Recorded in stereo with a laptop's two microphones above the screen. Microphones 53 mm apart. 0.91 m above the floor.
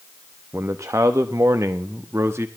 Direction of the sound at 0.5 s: 55° right (ahead or behind).